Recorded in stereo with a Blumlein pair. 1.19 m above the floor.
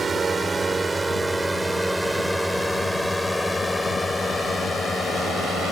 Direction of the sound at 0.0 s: 15° right.